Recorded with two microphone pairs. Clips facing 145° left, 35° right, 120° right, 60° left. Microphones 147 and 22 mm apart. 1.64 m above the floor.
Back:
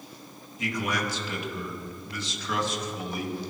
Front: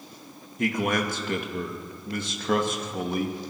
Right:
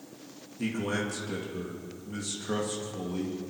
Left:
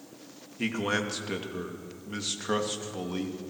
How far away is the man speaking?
About 2.5 m.